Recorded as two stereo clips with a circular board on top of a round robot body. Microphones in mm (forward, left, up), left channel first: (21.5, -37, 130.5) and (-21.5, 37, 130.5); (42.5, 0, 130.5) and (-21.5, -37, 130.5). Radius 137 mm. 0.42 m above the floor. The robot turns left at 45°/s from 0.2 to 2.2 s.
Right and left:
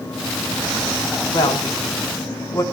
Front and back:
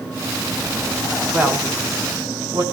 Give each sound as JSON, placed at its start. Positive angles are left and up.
{"t": 1.3, "sound": "a woman speaking", "azimuth_deg": -80, "distance_m": 5.5}